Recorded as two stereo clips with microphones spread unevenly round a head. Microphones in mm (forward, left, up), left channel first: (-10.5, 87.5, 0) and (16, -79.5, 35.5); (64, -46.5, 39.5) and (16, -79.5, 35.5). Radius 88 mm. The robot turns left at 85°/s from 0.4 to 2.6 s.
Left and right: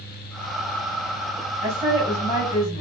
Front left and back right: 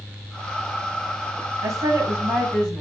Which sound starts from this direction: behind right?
A woman speaking, at 1.6 s.